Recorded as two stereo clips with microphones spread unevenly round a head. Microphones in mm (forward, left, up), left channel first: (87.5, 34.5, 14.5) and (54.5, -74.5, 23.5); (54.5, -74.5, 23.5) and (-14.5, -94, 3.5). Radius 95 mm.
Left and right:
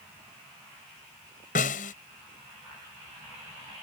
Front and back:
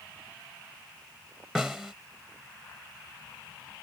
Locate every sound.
1.6 s a snare drum: 105° left